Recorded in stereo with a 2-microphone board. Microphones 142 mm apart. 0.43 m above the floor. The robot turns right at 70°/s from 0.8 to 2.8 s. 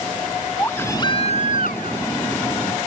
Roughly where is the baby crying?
Ahead.